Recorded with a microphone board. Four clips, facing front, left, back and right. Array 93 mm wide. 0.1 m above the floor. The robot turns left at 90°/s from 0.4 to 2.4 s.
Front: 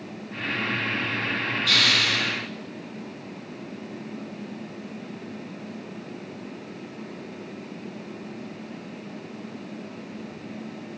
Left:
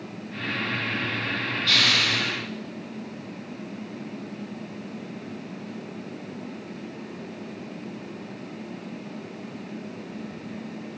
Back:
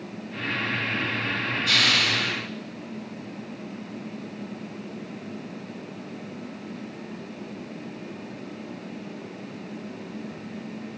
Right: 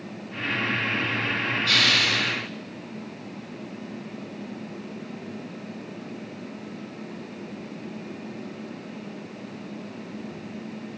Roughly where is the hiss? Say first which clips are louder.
Even, even; behind right.